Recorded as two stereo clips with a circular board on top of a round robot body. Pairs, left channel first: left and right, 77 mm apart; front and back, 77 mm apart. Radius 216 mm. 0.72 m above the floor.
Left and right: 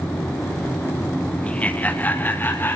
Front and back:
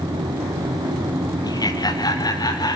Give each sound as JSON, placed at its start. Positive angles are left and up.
{"t": 1.4, "sound": "laughter", "azimuth_deg": 20, "distance_m": 1.6}